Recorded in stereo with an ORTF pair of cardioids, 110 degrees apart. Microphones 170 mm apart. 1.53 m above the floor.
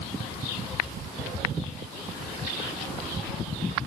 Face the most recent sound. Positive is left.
No sound to turn to.